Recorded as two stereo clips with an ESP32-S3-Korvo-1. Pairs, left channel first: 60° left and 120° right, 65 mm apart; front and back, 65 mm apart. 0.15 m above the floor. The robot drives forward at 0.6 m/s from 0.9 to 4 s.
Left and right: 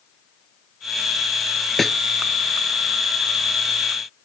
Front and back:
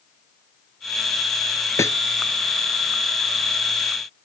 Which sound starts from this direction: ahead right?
A snare drum, at 1.8 s.